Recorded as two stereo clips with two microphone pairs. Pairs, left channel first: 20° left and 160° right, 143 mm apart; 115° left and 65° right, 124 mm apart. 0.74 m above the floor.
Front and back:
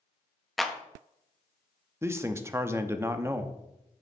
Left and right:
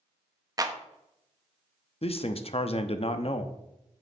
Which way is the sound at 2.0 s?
135° left.